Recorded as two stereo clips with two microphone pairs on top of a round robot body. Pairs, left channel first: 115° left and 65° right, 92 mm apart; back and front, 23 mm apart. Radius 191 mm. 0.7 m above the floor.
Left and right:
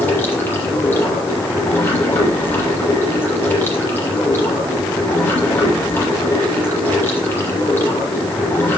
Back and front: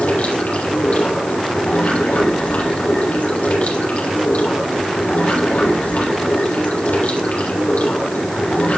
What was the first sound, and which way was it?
Running water, straight behind.